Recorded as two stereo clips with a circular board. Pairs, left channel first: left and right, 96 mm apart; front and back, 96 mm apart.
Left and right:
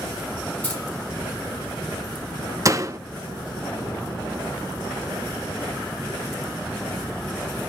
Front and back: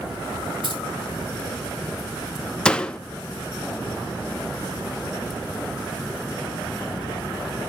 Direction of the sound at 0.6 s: 160° left.